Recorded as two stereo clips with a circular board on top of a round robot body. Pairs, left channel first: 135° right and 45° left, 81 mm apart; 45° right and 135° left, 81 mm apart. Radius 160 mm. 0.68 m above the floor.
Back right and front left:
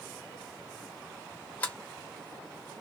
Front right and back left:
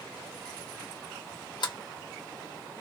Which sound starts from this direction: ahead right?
A sliding door, at 1.6 s.